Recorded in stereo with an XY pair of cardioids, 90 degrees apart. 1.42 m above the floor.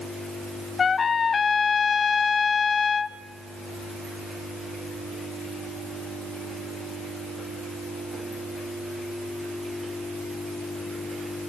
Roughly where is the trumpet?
Ahead left.